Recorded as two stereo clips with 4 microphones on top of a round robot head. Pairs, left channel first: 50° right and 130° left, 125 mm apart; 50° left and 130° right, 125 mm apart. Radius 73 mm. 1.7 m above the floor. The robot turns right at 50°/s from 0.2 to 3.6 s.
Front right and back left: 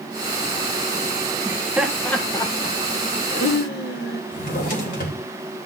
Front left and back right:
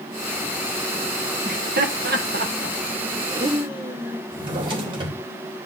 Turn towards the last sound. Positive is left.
turn(degrees=-75)